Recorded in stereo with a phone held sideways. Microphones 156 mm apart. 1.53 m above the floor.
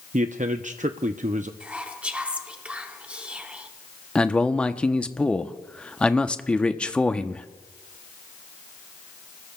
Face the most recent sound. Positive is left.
turn(degrees=5)  # may be behind; listen again after turning